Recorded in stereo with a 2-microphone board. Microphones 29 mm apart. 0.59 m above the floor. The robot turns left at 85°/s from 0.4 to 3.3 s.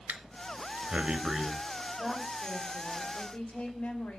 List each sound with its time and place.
0.1 s breathing: 85° right, 1.0 m; by 1.5 s centre (ahead or behind), 1.0 m
2.0 s a woman speaking: 165° right, 3 m; by 4.2 s 80° left, 3 m